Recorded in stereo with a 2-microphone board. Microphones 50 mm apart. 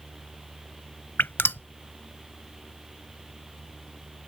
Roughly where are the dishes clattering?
No dishes clattering in this recording.